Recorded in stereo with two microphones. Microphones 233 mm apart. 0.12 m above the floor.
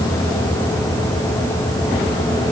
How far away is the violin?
I don't hear a violin.